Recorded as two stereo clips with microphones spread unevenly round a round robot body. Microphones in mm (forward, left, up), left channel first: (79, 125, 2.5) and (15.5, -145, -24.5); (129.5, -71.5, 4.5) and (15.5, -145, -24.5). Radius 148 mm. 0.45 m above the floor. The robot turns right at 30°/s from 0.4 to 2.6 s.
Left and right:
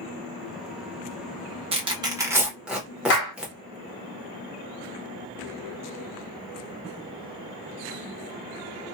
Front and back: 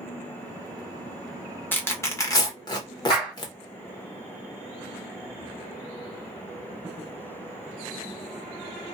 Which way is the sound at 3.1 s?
100° left.